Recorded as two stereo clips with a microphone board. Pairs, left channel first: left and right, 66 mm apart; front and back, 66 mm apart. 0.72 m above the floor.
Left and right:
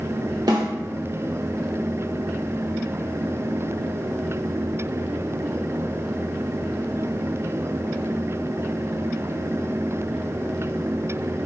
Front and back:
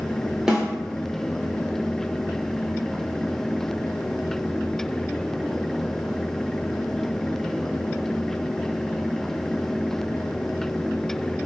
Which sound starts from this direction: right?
A snare drum, at 0.5 s.